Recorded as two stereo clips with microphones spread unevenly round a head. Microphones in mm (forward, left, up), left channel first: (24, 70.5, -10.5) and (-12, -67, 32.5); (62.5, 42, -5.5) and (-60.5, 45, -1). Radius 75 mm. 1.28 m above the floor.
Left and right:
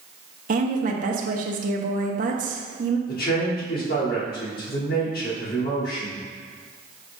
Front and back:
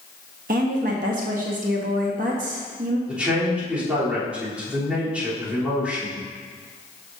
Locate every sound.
0.5 s a woman speaking: 145° right, 1.0 m
3.1 s a man speaking: 100° left, 3 m